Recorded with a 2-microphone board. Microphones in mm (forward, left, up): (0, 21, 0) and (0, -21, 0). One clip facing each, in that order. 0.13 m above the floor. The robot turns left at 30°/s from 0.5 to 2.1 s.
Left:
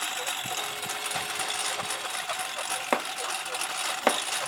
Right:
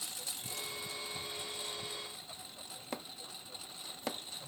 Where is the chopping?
60° left (ahead or behind).